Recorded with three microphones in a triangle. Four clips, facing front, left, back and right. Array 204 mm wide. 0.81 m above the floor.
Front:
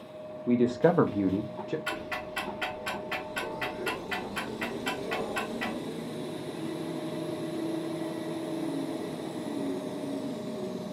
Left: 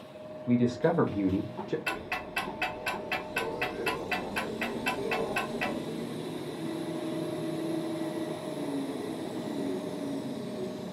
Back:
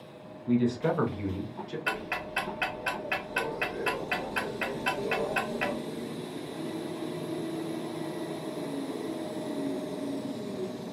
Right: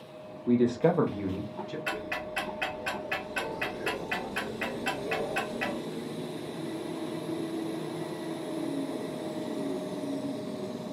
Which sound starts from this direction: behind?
Ticking, at 1.9 s.